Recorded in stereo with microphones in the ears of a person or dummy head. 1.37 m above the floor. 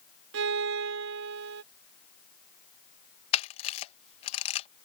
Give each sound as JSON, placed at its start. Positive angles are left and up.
{"t": 0.3, "sound": "a violin", "side_deg": -65}
{"t": 3.3, "sound": "a camera shutter", "side_deg": 35}